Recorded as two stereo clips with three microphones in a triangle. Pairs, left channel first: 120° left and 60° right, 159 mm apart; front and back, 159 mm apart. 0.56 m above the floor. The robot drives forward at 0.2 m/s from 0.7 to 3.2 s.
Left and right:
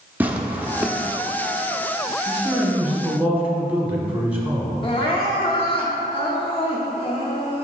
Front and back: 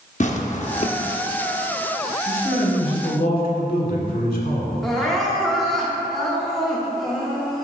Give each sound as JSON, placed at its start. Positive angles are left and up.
{"t": 0.2, "sound": "tearing paper", "azimuth_deg": 15, "distance_m": 0.6}
{"t": 2.3, "sound": "a man speaking", "azimuth_deg": 20, "distance_m": 1.8}
{"t": 4.8, "sound": "crying", "azimuth_deg": 90, "distance_m": 1.0}